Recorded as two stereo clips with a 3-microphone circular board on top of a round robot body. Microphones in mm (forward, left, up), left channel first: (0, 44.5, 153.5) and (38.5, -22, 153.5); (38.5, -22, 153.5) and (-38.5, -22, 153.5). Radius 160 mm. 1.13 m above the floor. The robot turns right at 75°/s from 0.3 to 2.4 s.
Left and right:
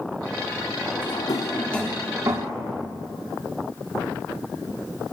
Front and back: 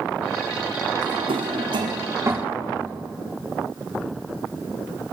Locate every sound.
1.0 s a drawer: 140° left, 1.5 m; by 2.5 s 110° right, 1.5 m